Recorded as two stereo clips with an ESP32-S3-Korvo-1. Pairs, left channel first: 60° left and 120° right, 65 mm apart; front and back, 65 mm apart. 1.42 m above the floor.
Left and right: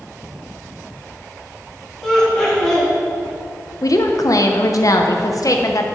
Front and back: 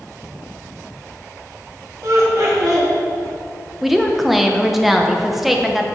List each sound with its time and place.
2.0 s laughter: 140° left, 3.5 m
3.8 s a woman speaking: 90° left, 0.9 m